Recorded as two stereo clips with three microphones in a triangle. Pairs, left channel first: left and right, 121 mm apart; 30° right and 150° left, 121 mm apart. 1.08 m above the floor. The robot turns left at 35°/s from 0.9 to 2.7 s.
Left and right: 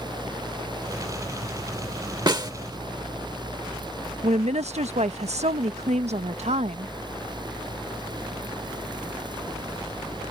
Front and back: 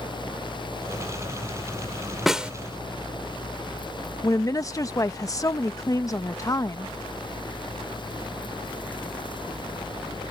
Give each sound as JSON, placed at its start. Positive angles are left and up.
{"t": 2.3, "sound": "a snare drum", "azimuth_deg": -120}
{"t": 4.2, "sound": "a woman speaking", "azimuth_deg": -90}